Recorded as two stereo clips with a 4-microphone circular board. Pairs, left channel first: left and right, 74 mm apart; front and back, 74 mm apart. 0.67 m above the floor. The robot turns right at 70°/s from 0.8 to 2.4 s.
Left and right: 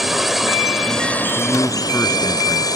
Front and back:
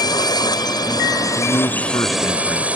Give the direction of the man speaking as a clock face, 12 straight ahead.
12 o'clock.